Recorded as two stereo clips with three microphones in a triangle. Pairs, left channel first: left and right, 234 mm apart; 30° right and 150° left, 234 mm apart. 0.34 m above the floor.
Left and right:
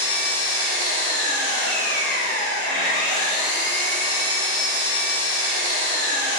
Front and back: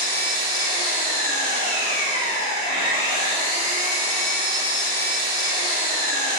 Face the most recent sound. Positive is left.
turn(degrees=170)